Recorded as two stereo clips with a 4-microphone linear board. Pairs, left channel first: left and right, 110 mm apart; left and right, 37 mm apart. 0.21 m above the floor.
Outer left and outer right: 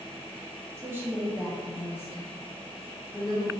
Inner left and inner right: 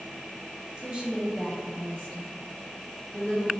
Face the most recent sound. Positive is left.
turn(degrees=55)  # may be behind; listen again after turning